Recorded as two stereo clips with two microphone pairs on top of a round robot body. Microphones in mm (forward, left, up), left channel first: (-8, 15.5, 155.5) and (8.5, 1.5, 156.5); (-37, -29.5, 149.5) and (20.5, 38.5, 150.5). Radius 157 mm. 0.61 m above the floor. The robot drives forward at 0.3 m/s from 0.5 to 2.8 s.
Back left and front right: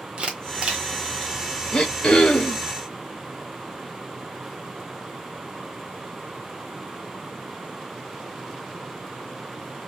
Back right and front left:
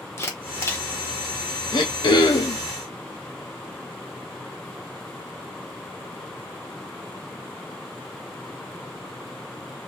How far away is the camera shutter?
About 1.4 m.